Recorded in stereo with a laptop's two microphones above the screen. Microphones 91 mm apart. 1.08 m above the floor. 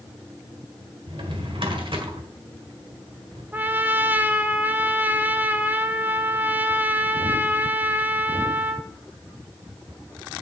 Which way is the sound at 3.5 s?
20° right (ahead or behind).